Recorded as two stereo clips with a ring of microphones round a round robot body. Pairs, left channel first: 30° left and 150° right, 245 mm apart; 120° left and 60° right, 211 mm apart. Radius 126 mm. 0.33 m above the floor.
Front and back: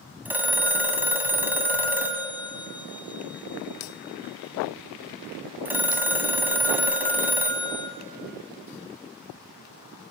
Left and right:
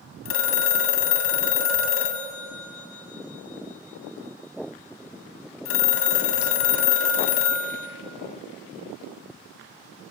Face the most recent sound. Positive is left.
turn(degrees=125)